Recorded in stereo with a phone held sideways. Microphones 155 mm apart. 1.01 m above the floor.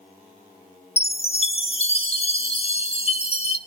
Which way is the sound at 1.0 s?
40° left (ahead or behind).